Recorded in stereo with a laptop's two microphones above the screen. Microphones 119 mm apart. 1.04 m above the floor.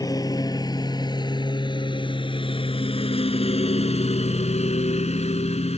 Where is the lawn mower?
30° left (ahead or behind); by 5.8 s 65° left (ahead or behind).